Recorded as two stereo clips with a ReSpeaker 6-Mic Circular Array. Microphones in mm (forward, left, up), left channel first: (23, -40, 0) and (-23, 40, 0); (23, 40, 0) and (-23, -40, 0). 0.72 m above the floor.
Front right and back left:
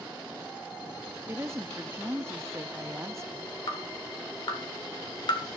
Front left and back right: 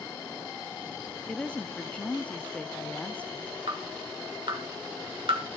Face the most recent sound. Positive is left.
turn(degrees=-90)